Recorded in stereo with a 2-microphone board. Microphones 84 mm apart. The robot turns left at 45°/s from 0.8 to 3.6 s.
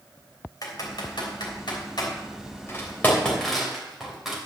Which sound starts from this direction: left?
Typing on a keyboard, at 0.6 s.